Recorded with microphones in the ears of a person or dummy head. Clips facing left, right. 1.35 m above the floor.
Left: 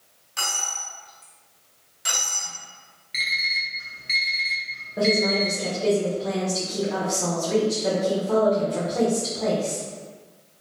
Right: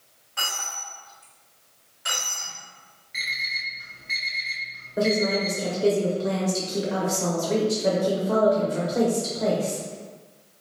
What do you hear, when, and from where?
0.4 s a dropped coin: 50° left (ahead or behind), 2.0 m
3.1 s an alarm clock: 50° left (ahead or behind), 1.0 m
5.0 s a woman speaking: 10° right (ahead or behind), 0.9 m